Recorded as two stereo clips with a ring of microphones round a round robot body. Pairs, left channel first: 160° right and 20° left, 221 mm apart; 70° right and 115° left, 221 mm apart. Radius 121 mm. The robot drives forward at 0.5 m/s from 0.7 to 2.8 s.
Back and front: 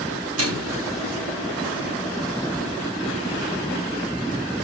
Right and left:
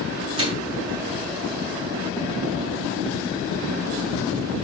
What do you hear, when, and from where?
0.4 s a microwave: 45° left, 6 m